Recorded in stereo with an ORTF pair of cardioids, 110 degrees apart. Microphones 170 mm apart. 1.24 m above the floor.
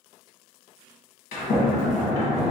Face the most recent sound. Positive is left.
turn(degrees=65)